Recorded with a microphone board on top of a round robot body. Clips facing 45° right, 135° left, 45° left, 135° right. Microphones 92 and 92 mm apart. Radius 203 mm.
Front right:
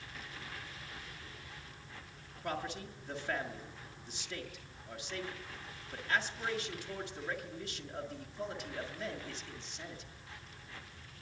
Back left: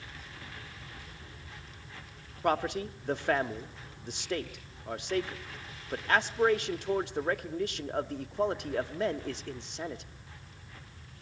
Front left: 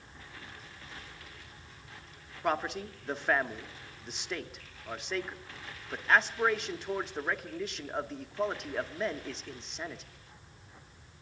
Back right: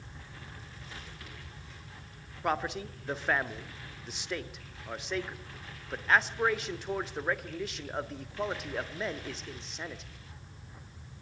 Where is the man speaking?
135° left, 1.6 m.